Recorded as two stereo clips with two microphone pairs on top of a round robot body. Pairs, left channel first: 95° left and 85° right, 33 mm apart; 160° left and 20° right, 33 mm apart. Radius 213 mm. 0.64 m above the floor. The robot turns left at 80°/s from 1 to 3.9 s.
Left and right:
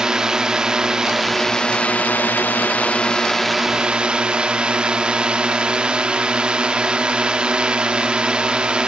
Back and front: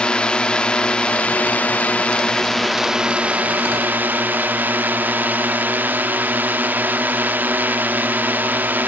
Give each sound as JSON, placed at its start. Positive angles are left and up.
{"t": 0.0, "sound": "a drone", "azimuth_deg": -150}